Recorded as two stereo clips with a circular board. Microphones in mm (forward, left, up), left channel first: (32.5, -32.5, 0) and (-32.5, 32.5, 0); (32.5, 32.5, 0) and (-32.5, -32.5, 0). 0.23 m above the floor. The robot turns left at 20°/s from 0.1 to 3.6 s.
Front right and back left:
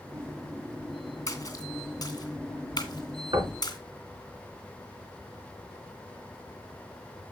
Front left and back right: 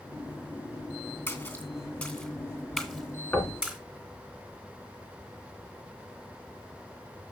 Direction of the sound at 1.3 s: 5° right.